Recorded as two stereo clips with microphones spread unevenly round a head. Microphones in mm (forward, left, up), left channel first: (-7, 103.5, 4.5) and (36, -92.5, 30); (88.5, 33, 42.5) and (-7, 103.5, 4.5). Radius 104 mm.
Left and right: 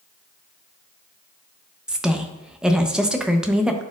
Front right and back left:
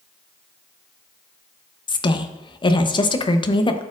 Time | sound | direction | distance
1.9 | a woman speaking | 5° left | 0.8 m